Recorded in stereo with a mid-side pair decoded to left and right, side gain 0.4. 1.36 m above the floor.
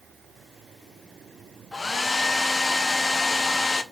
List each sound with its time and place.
1.7 s a hair dryer: 30° left, 0.5 m